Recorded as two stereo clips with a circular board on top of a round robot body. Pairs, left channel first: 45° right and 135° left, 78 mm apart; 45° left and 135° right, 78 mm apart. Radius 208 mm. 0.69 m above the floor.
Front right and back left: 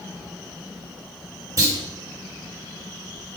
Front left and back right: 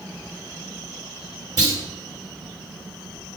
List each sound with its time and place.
1.6 s a clunk: 175° right, 3 m